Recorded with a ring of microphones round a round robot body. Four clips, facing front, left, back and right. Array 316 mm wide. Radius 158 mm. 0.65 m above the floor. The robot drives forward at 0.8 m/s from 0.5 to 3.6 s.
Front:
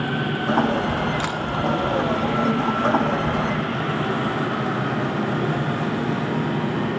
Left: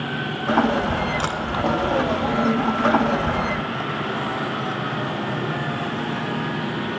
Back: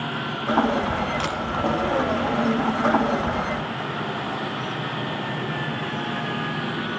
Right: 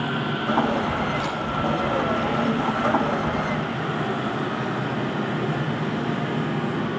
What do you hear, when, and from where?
1.2 s a camera shutter: 75° left, 2 m; by 1.4 s 80° left, 2 m